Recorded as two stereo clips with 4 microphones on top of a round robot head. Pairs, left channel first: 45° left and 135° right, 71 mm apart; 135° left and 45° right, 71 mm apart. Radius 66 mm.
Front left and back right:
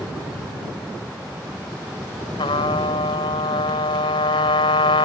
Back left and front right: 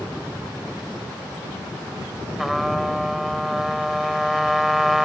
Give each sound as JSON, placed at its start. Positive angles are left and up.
{"t": 2.4, "sound": "a trumpet", "azimuth_deg": 45}